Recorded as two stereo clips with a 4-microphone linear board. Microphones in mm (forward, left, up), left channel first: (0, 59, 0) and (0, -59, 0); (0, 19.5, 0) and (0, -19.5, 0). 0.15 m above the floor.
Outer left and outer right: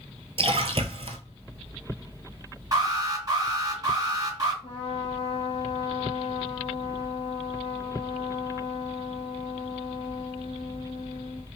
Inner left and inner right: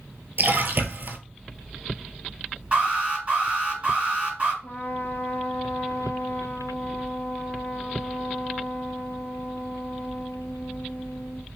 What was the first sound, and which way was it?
A splash, 55° right (ahead or behind).